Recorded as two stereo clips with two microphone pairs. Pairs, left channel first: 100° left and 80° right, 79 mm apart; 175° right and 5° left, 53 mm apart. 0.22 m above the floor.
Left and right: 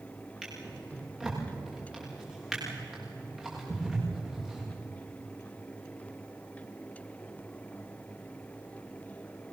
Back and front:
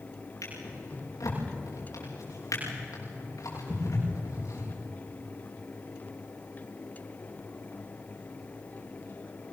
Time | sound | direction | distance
0.4 | a drawer | 160° right | 8 m